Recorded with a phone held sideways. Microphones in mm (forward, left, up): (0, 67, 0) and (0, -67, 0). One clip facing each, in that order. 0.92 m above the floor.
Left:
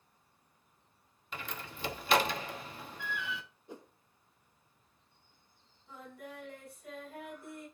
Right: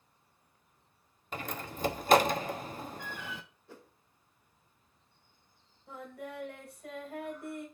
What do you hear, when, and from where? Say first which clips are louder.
1.3 s a door slam: right 5 dB; 45° right (ahead or behind), 0.9 m
3.7 s a whoosh: left 6 dB; 20° left (ahead or behind), 0.8 m
5.9 s singing: right 5 dB; 65° right (ahead or behind), 4.5 m